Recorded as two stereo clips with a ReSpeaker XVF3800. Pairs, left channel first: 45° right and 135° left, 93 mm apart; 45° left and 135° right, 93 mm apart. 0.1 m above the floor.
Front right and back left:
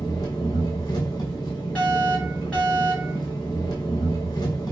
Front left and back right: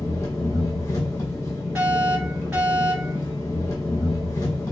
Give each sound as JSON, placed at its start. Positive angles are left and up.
{"t": 0.0, "sound": "an engine running", "azimuth_deg": -10, "distance_m": 1.3}
{"t": 1.8, "sound": "a fire alarm", "azimuth_deg": -100, "distance_m": 2.0}